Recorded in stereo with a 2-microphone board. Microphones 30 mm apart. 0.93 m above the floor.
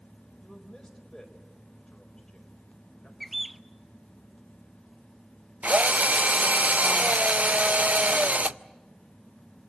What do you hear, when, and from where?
0.4 s a man speaking: 15° left (ahead or behind), 4 m
3.2 s a bird: 5° left (ahead or behind), 0.5 m
5.6 s a drill: 50° right (ahead or behind), 0.5 m